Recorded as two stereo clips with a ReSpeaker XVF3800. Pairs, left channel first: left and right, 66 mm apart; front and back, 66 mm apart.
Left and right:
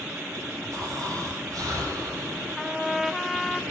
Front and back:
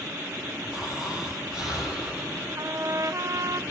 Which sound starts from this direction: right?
Snoring, at 0.7 s.